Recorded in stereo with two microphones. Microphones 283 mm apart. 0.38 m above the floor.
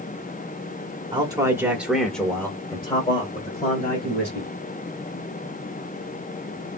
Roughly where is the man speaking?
Centre.